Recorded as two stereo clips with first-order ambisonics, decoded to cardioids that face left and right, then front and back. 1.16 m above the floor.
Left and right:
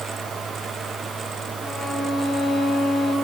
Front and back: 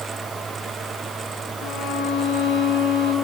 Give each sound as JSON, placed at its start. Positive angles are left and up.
{"t": 1.6, "sound": "a violin", "azimuth_deg": 10, "distance_m": 4.5}